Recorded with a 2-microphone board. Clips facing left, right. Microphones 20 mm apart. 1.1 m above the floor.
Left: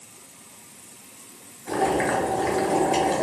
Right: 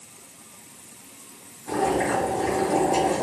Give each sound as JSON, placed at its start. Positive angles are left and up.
{"t": 1.7, "sound": "boiling", "side_deg": 70, "distance_m": 1.7}